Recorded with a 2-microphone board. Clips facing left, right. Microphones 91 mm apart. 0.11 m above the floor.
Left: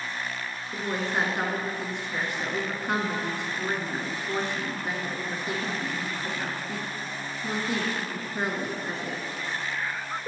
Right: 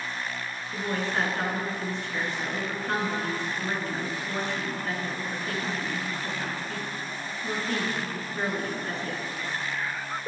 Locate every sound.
0.7 s a woman speaking: 20° left (ahead or behind), 1.1 m